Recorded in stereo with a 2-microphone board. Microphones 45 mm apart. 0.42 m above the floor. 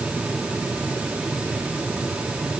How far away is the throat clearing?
No throat clearing in this recording.